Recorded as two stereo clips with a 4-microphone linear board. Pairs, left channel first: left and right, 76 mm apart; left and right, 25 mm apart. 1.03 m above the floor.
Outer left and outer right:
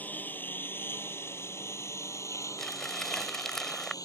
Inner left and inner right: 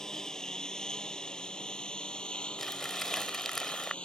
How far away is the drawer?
No drawer in this recording.